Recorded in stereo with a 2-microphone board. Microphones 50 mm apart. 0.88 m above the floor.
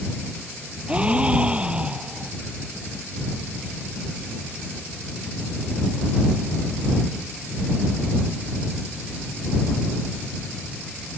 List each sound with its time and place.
0.9 s a gasp: 25° right (ahead or behind)